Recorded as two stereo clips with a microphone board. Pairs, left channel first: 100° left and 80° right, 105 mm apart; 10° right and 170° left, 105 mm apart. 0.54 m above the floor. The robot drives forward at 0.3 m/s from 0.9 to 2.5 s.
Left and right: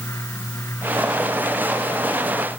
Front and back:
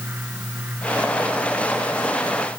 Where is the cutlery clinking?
I don't hear cutlery clinking.